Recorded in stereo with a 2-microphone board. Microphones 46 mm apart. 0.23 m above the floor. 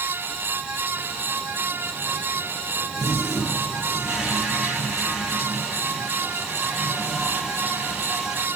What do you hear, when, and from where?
3.0 s a toilet flushing: 10° right (ahead or behind), 4 m